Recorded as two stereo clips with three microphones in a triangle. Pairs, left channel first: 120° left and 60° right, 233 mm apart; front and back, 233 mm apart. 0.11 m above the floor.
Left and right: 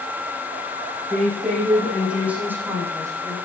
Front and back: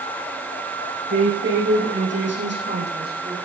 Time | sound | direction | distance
1.1 | a woman speaking | 150° right | 7.5 m